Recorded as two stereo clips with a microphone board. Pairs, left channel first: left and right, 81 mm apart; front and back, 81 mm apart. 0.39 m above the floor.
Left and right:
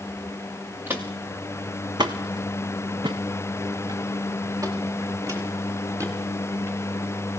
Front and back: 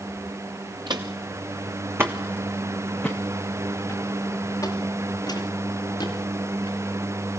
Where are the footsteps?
155° right, 2 m; by 6.8 s 35° right, 5.5 m.